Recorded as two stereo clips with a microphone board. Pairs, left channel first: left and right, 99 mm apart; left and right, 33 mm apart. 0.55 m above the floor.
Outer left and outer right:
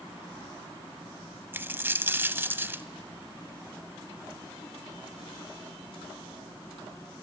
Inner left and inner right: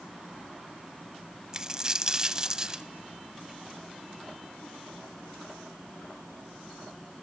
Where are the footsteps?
I don't hear footsteps.